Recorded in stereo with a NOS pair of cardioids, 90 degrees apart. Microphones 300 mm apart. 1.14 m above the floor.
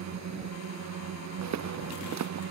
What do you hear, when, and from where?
0.0 s a drone: 65° right
1.4 s footsteps: 65° right